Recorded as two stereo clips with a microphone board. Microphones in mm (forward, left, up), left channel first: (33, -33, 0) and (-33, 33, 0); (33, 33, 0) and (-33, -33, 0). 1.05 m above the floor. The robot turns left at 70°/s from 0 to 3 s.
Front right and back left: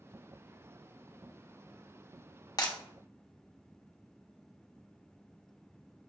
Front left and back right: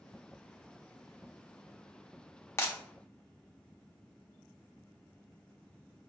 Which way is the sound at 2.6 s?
10° right.